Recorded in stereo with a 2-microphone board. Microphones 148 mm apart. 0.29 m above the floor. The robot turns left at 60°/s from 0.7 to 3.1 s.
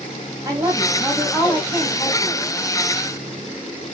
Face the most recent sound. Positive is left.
turn(degrees=70)